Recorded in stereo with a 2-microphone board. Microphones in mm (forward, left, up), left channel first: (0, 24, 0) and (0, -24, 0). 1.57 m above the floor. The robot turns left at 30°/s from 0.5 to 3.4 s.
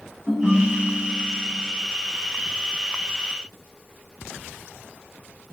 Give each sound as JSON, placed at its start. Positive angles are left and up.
{"t": 0.3, "sound": "a ringtone", "azimuth_deg": 10, "distance_m": 0.9}